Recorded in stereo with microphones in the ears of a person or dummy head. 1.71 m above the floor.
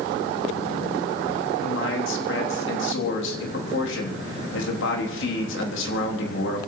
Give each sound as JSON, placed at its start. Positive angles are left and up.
{"t": 1.6, "sound": "a man speaking", "side_deg": 80, "distance_m": 3.5}